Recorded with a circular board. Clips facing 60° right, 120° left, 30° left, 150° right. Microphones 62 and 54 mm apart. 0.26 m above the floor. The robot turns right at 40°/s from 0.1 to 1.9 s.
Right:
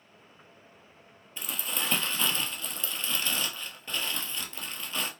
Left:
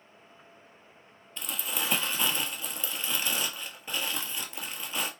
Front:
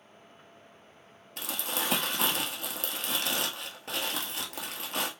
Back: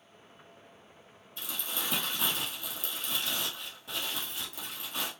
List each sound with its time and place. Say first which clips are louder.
1.4 s crumpling: even, front 4 dB; 20° left, 1.0 m; by 5.1 s 40° left, 1.0 m